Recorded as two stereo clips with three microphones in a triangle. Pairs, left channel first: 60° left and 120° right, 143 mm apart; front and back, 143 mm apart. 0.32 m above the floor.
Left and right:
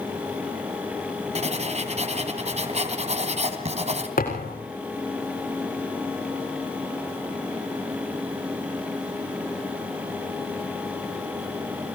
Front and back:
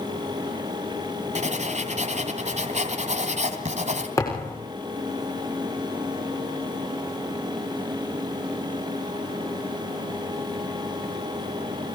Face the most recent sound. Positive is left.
turn(degrees=70)